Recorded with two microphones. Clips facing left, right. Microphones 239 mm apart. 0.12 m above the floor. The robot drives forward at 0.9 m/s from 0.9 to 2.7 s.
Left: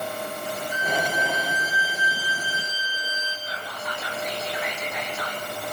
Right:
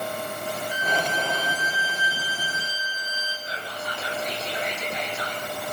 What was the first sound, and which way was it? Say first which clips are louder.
A violin: left 2 dB; 60° left (ahead or behind).